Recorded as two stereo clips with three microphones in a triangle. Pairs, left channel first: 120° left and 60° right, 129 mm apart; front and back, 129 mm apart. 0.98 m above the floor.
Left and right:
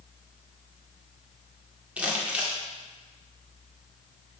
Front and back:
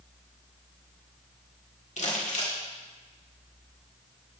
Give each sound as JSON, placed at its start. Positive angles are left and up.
{"t": 2.0, "sound": "crumpling", "azimuth_deg": 20, "distance_m": 1.8}